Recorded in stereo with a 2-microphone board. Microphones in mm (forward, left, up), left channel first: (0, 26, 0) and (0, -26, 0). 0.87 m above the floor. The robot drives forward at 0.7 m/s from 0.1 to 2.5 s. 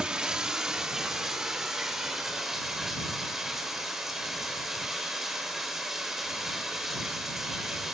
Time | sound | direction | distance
0.0 | running water | 15° right (ahead or behind) | 1.3 m